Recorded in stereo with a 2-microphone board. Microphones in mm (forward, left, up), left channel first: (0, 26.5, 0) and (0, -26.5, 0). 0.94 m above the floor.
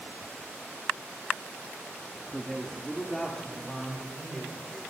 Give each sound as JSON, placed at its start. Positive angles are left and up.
{"t": 2.3, "sound": "a man speaking", "side_deg": 10, "distance_m": 2.0}